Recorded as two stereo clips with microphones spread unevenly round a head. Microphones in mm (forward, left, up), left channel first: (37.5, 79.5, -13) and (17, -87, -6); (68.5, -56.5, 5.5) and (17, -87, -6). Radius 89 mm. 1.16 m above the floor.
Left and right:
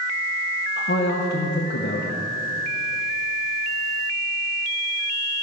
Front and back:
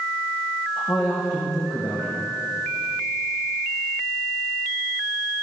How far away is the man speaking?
About 0.9 m.